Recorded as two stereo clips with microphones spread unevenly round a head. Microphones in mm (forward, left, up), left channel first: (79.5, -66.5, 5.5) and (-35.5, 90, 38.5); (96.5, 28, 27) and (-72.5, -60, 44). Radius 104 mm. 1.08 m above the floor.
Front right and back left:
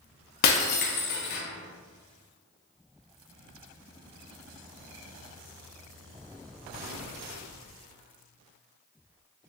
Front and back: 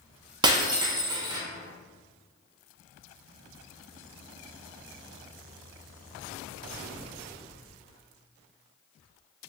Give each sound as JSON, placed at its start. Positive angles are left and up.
{"t": 0.4, "sound": "breaking glass", "azimuth_deg": -95, "distance_m": 0.5}